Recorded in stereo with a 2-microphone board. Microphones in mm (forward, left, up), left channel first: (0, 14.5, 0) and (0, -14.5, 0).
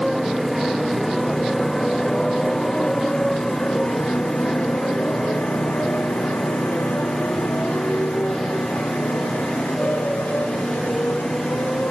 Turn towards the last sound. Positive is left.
turn(degrees=85)